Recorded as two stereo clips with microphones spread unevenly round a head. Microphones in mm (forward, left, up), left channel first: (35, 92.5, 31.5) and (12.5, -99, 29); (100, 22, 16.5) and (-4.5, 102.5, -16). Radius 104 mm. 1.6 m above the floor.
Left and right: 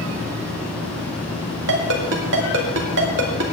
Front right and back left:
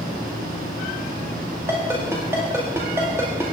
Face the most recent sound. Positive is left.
turn(degrees=-135)